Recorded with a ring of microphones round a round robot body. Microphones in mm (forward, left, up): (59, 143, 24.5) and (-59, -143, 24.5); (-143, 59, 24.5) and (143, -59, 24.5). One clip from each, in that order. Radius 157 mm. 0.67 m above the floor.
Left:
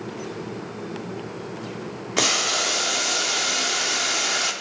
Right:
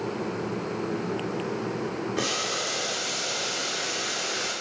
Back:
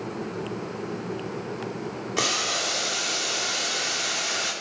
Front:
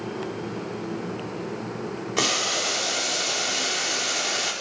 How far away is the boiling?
About 2 m.